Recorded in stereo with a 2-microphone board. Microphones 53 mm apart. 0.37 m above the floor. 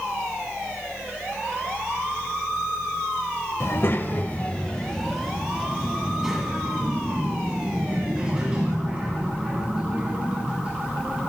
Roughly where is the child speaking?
Left.